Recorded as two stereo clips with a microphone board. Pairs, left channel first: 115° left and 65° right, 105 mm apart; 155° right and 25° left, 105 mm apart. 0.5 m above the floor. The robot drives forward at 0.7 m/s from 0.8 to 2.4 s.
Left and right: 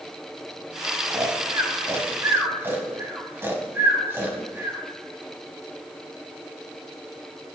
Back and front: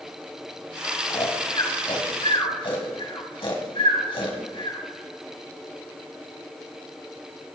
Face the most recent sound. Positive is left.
turn(degrees=-130)